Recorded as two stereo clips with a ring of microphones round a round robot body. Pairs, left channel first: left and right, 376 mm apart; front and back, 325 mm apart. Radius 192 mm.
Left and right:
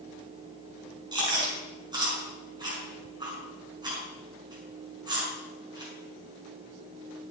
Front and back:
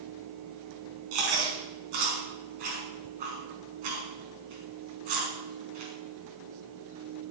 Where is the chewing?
170° right, 5 m.